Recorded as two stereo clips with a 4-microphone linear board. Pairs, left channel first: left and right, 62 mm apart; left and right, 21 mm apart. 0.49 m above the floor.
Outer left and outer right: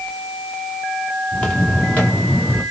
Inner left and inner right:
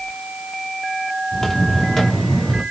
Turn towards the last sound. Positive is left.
turn(degrees=25)  # may be behind; listen again after turning